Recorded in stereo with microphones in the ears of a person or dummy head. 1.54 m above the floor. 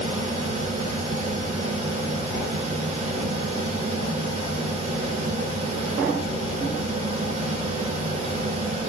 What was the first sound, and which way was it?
A fan, 45° right (ahead or behind).